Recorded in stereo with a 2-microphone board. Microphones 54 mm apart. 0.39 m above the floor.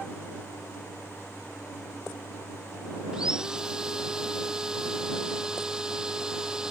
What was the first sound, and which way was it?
Sawing, 10° right (ahead or behind).